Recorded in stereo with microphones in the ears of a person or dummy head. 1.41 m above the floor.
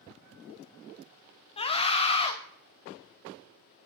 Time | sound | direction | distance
1.6 | a scream | 30° left (ahead or behind) | 0.7 m